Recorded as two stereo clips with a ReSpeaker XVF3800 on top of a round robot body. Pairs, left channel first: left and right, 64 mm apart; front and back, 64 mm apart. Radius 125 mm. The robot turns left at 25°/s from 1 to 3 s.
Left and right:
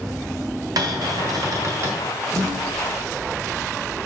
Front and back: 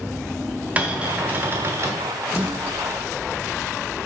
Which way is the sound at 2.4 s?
115° right.